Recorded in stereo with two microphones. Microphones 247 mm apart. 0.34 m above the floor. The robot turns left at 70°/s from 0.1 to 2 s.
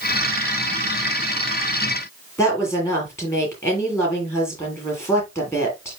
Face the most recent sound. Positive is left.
turn(degrees=10)  # may be behind; listen again after turning